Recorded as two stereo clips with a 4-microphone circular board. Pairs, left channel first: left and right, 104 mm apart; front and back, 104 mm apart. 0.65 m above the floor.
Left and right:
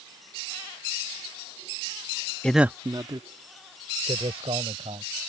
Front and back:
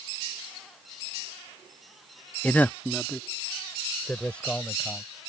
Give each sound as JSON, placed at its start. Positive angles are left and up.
{"t": 2.4, "sound": "a man speaking", "azimuth_deg": 40}